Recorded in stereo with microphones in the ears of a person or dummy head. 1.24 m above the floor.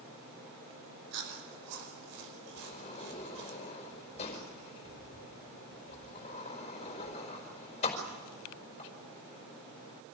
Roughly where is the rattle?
No rattle in this recording.